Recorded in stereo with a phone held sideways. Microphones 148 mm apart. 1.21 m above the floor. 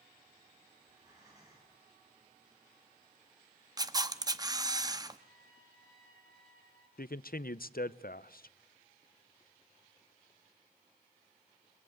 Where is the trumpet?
75° right (ahead or behind), 4 m.